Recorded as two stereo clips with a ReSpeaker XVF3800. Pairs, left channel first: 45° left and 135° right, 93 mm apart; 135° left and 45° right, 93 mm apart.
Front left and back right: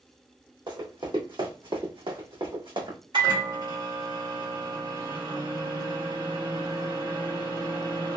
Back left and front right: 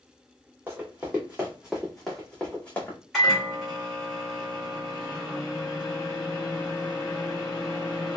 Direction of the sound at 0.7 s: 110° right.